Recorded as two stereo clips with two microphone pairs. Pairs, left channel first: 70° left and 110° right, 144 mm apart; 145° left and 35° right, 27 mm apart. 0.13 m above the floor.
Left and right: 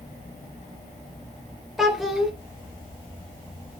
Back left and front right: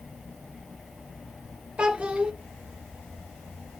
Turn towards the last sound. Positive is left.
turn(degrees=-20)